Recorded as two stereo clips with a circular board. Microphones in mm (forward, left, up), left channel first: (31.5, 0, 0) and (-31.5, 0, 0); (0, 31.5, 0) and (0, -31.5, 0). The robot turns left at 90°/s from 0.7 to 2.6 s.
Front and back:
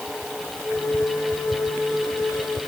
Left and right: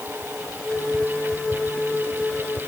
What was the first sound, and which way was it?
Only background noise.